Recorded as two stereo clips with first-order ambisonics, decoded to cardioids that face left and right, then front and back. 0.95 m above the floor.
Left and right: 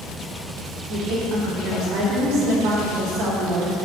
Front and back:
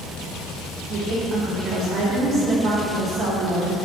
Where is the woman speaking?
125° right, 2 m.